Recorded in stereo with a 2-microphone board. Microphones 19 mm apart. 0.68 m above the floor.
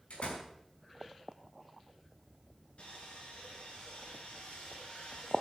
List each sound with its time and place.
0.1 s a door slam: 80° left, 5 m
2.8 s sawing: 85° left, 7.5 m